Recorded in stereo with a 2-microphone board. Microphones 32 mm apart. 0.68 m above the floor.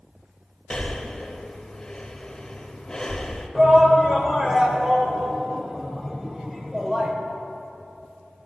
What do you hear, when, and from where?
0.7 s breathing: 20° left (ahead or behind), 0.9 m
3.5 s a shout: 10° right (ahead or behind), 2 m